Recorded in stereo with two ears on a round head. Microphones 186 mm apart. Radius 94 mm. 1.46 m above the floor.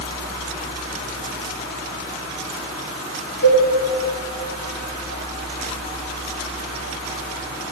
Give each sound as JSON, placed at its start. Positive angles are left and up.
{"t": 3.4, "sound": "a cowbell", "side_deg": 75, "distance_m": 6.5}